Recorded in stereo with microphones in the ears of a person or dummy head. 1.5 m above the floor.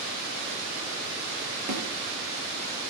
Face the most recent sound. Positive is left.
turn(degrees=-50)  # may be behind; listen again after turning